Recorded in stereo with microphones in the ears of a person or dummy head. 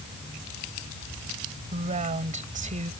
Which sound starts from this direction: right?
A woman speaking, at 1.7 s.